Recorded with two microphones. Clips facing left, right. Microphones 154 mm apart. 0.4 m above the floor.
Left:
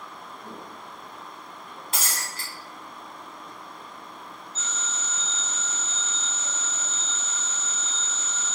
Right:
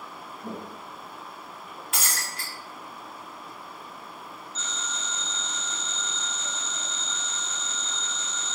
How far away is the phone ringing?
About 2.0 m.